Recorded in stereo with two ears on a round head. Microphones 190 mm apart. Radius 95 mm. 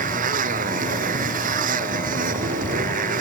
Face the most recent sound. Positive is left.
turn(degrees=-40)  # may be behind; listen again after turning